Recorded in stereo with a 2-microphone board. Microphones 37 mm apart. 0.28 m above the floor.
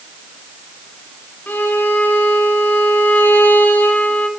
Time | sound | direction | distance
1.5 | a violin | 60° left (ahead or behind) | 1.1 m